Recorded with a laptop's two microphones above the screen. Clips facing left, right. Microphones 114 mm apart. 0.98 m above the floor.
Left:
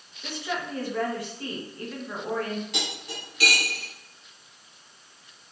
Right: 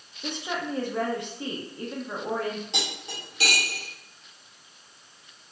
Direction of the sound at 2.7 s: 25° right (ahead or behind).